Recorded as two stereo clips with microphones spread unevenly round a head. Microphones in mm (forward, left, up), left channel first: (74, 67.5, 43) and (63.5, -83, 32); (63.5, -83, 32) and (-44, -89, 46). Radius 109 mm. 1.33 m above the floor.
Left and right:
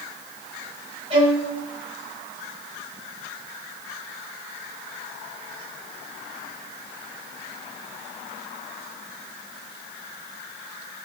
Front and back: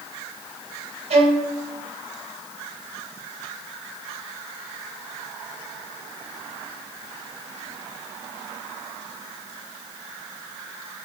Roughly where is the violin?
Behind.